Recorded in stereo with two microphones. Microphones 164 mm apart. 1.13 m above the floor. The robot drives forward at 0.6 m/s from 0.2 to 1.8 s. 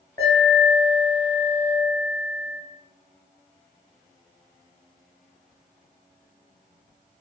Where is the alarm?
25° left (ahead or behind), 1.3 m; by 2.6 s 20° left (ahead or behind), 1.4 m.